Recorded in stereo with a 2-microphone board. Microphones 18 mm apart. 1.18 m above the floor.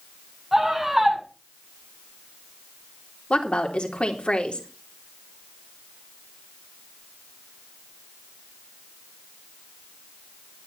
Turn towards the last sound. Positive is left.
turn(degrees=80)